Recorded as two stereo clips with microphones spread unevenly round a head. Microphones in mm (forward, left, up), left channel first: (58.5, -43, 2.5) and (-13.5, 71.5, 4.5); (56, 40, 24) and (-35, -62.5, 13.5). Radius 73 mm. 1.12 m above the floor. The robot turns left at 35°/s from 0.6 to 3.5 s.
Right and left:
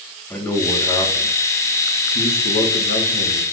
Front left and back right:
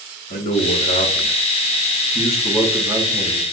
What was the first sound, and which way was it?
A man speaking, 20° left.